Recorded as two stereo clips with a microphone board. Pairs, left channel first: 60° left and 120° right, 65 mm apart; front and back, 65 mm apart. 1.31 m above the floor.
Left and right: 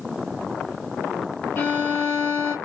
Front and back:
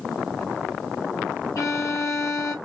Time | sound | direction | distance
1.6 | a violin | 10° left | 1.8 m